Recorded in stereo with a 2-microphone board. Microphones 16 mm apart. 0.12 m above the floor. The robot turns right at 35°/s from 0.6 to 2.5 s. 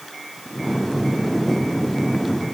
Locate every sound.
Only background noise.